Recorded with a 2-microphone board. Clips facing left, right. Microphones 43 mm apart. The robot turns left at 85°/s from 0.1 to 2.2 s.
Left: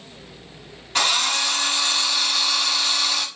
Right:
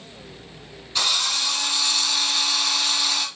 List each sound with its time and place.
0.9 s a drill: 110° left, 1.8 m; by 3.2 s 5° left, 1.8 m